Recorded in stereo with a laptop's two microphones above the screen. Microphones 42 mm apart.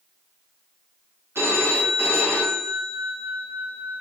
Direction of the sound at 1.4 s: 65° right (ahead or behind).